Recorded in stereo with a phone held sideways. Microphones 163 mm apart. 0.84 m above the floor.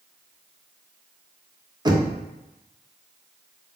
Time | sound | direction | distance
1.9 | knocking | 25° right (ahead or behind) | 0.5 m